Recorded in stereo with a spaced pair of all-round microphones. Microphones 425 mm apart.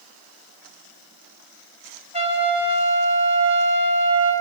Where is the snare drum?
No snare drum in this recording.